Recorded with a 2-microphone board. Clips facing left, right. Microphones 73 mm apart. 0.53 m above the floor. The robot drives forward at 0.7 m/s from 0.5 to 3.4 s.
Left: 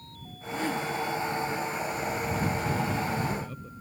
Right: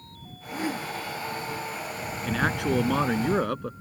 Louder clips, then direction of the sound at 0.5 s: Left 1 dB; 10° right (ahead or behind).